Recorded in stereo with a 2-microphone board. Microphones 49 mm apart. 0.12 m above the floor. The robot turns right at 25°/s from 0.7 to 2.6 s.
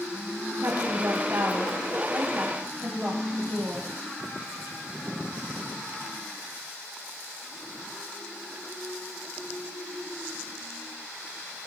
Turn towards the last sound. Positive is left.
turn(degrees=-45)